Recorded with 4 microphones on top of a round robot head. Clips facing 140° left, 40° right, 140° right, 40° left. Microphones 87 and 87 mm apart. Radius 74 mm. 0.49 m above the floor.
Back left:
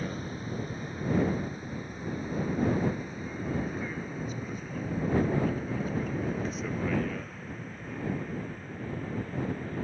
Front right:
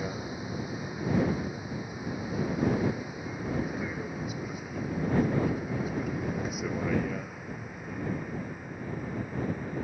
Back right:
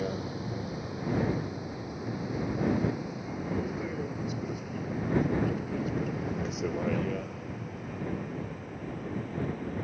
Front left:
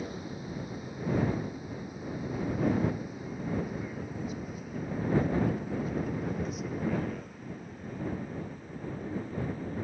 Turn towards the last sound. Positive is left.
turn(degrees=-120)